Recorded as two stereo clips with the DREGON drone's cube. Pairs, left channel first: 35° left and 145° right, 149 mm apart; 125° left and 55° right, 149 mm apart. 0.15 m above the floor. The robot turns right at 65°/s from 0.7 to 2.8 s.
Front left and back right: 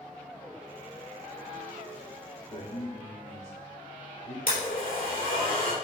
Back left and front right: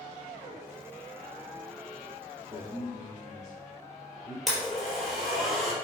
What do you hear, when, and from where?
2.5 s a man speaking: 15° left, 3 m; by 4.4 s 35° left, 3 m
4.5 s a blender: 35° left, 3.5 m